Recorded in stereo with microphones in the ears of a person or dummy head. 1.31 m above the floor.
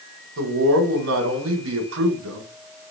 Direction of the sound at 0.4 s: 75° right (ahead or behind).